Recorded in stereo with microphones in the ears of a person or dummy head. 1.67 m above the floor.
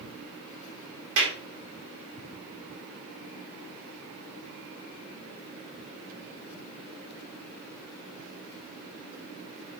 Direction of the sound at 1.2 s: 70° right (ahead or behind).